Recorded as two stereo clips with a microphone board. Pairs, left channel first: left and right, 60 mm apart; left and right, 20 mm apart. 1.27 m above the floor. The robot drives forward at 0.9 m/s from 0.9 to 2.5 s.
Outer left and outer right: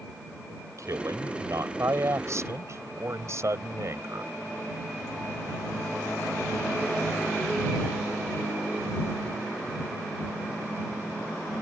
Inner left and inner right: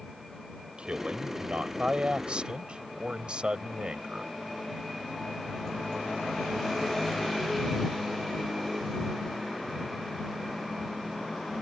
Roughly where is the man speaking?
Right.